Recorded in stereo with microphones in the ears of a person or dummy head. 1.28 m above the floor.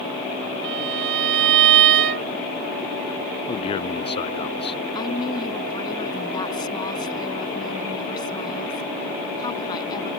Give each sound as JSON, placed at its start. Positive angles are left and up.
{"t": 0.6, "sound": "a violin", "side_deg": -60}
{"t": 3.5, "sound": "a man speaking", "side_deg": 25}
{"t": 5.0, "sound": "a woman speaking", "side_deg": 25}